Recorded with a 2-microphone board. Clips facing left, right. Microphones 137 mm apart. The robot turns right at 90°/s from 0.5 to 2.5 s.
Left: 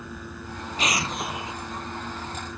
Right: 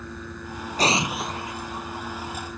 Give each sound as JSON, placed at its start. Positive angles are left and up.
{"t": 0.8, "sound": "an explosion", "azimuth_deg": -40}